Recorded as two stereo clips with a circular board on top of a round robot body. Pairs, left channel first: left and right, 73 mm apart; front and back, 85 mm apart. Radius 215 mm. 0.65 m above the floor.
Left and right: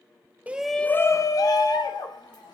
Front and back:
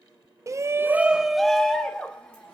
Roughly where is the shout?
Behind right.